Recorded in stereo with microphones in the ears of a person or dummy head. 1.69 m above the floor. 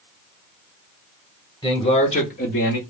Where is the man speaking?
20° left (ahead or behind), 1.1 m; by 2.8 s 75° left (ahead or behind), 1.1 m.